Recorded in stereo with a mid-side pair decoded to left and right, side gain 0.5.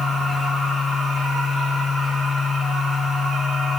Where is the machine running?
5° left, 7.5 m.